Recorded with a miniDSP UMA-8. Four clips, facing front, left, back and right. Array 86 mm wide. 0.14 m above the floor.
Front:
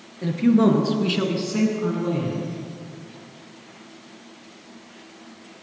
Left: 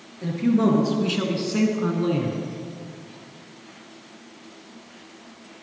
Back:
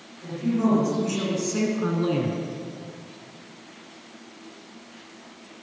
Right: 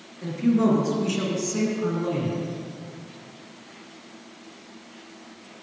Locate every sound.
0.2 s a man speaking: 10° left, 2.5 m; by 2.4 s 155° left, 1.8 m